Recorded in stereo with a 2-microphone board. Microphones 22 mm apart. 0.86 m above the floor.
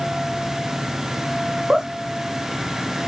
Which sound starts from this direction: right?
Laughter, at 1.7 s.